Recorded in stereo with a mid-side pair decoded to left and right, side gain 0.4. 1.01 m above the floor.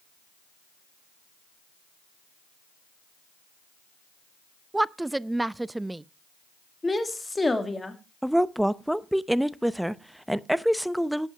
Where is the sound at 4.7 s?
15° right, 0.5 m.